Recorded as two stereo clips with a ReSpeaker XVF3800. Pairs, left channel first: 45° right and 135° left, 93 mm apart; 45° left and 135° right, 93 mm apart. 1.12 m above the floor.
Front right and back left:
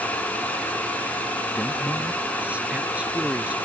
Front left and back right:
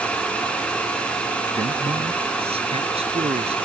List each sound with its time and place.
1.6 s a man speaking: 150° right